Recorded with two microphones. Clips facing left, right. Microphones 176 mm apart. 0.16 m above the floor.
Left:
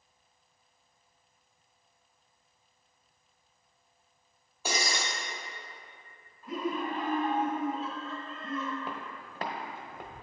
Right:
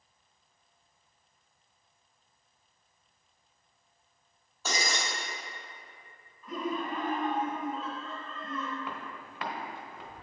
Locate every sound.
4.7 s breaking glass: 15° left (ahead or behind), 2.0 m
6.4 s laughter: 30° left (ahead or behind), 1.9 m
8.8 s footsteps: 30° left (ahead or behind), 1.5 m; by 10.2 s 60° left (ahead or behind), 1.1 m